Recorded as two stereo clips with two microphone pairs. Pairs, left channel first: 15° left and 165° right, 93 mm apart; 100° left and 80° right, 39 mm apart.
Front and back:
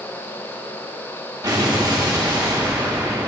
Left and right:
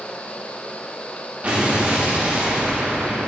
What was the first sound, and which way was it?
An explosion, 125° right.